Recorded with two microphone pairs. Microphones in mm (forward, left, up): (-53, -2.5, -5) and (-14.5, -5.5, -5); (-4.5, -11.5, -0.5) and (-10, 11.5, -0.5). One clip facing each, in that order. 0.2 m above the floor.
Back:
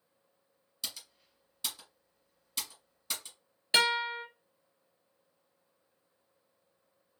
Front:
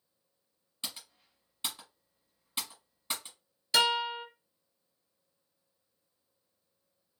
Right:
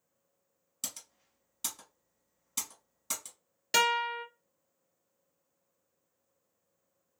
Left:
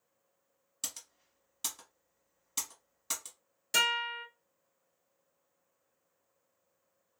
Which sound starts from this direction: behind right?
A guitar, at 3.7 s.